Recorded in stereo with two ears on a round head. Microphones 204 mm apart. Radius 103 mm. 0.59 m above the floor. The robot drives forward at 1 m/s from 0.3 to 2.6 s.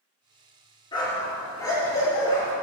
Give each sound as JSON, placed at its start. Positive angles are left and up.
{"t": 0.9, "sound": "a dog barking", "side_deg": 20, "distance_m": 3.5}